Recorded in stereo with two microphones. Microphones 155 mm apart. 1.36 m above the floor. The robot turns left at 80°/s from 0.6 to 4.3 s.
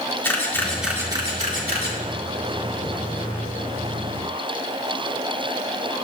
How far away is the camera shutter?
About 2.5 m.